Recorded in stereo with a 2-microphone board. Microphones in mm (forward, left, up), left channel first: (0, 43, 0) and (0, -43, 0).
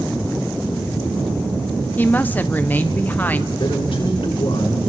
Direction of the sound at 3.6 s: 65° left (ahead or behind).